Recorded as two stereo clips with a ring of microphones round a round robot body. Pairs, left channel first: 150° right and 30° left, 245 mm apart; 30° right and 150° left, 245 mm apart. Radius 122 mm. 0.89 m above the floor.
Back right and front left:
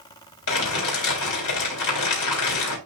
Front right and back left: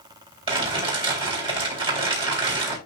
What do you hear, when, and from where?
0.5 s crumpling: 140° right, 4 m